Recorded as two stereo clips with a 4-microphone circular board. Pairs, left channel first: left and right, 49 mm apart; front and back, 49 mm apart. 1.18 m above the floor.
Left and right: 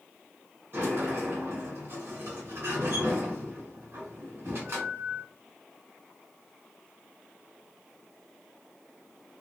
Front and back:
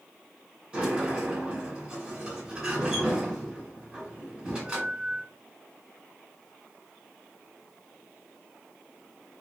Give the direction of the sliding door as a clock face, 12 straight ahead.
4 o'clock.